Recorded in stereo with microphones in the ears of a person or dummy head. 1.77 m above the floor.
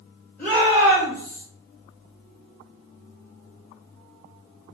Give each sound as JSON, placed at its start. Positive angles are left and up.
{"t": 0.4, "sound": "a shout", "side_deg": 10, "distance_m": 1.6}